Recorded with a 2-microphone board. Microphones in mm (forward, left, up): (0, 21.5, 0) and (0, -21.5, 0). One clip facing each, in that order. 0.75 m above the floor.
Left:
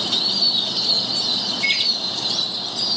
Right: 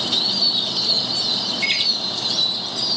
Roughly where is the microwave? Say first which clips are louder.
Left 1 dB; right.